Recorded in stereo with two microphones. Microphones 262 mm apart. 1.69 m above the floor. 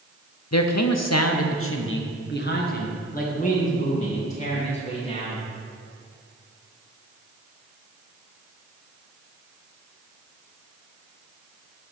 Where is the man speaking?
75° left (ahead or behind), 0.8 m; by 5.5 s 25° left (ahead or behind), 3.5 m.